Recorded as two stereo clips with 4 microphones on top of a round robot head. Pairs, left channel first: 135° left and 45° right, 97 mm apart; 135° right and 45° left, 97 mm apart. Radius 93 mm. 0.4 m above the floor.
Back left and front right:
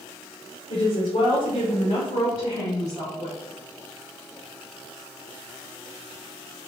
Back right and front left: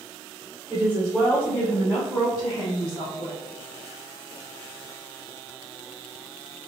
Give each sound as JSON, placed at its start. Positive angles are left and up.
{"t": 0.7, "sound": "a woman speaking", "azimuth_deg": 125, "distance_m": 1.5}